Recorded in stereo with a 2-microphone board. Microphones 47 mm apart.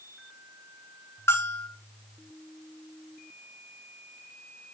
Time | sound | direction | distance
1.3 | a bell | 70° left (ahead or behind) | 1.6 m